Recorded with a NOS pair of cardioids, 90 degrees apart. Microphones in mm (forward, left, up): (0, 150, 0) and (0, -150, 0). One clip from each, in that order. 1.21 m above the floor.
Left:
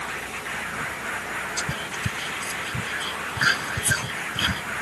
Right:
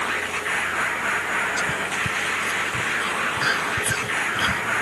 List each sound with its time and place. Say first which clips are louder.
0.0 s a machine running: right 6 dB; 55° right
1.6 s whispering: right 5 dB; 20° left